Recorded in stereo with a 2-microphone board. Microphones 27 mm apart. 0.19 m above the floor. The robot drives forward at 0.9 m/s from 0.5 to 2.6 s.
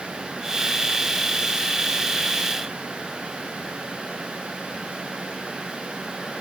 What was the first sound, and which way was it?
Only background noise.